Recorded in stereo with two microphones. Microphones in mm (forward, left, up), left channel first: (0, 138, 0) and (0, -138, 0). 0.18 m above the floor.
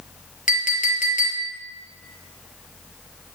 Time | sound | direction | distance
0.5 | a clink | 30° left (ahead or behind) | 2 m